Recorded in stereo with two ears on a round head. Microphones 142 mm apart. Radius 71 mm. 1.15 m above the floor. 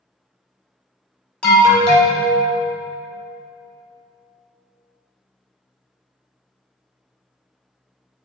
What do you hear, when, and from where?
1.4 s an alarm: 5° left (ahead or behind), 0.9 m